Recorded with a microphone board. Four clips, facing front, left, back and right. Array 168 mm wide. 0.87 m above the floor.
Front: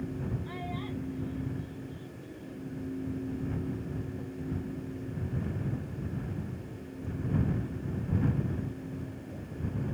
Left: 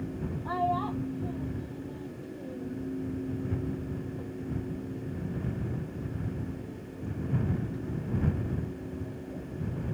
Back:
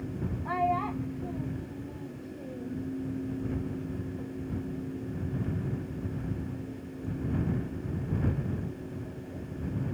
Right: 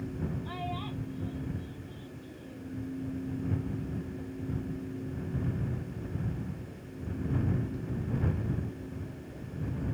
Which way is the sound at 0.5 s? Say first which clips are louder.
Left 9 dB, back 10 dB; 140° left.